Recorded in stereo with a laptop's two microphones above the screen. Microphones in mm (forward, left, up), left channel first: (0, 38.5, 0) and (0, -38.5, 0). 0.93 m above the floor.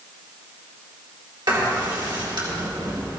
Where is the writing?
65° right (ahead or behind), 4 m.